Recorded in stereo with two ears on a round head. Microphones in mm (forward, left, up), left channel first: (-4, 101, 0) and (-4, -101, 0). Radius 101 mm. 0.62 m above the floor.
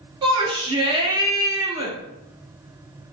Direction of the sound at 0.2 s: 20° right (ahead or behind).